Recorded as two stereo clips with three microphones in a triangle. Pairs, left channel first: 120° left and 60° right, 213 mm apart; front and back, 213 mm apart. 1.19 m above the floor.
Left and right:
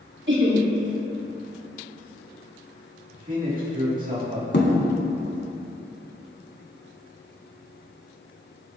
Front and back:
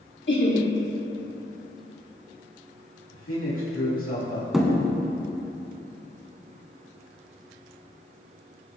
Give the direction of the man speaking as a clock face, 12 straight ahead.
12 o'clock.